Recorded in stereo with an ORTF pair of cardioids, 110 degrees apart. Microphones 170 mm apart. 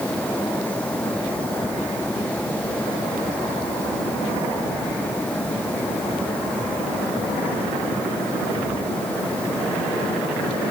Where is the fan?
10° left.